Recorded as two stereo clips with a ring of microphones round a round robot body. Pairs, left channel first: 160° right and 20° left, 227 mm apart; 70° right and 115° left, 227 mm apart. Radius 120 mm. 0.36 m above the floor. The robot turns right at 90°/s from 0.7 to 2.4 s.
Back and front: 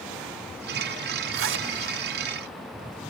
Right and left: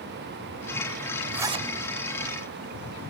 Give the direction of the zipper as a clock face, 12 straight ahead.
11 o'clock.